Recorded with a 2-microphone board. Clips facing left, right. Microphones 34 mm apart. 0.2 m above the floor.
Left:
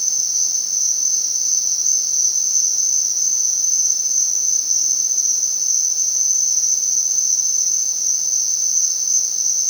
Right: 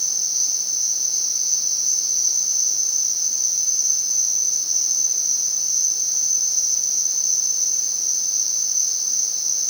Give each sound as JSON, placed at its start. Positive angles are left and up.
{"t": 0.0, "sound": "an insect", "side_deg": -25, "distance_m": 8.0}